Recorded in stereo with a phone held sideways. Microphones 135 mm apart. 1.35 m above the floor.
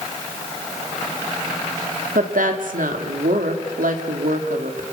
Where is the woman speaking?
90° right, 3 m.